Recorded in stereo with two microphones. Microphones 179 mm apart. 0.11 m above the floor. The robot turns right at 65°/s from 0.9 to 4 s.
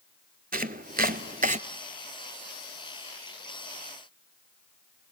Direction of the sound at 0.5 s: 55° right (ahead or behind).